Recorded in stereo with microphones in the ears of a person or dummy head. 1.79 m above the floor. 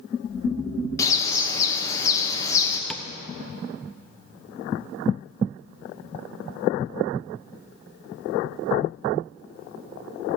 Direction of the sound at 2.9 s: 5° left (ahead or behind).